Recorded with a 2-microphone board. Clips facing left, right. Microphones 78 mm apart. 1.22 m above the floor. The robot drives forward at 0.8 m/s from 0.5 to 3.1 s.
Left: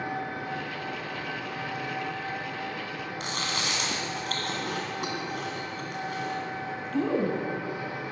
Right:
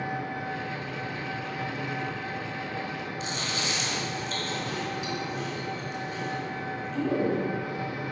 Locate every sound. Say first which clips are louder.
0.0 s an engine running: even; 60° left (ahead or behind), 2 m; by 8.1 s 30° left (ahead or behind), 4 m
3.2 s chewing: left 2 dB; 60° left (ahead or behind), 2.0 m